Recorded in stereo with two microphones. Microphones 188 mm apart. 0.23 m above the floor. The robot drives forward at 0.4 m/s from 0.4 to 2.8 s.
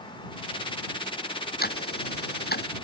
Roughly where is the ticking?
Left.